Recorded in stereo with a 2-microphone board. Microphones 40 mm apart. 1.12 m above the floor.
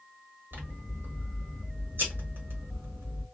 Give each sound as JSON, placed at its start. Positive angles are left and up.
{"t": 0.5, "sound": "scissors", "side_deg": -65, "distance_m": 1.5}